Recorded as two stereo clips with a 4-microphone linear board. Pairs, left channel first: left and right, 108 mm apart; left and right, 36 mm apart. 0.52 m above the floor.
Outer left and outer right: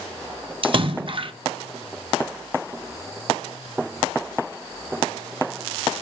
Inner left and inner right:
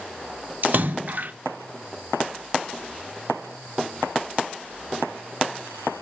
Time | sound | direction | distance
0.6 | a splash | 50° right (ahead or behind) | 0.6 m